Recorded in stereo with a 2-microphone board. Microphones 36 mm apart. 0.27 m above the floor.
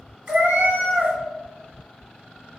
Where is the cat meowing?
60° right (ahead or behind), 1.0 m.